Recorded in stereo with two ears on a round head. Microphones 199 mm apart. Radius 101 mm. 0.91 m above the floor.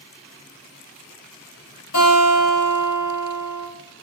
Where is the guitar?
65° left (ahead or behind), 1.7 m.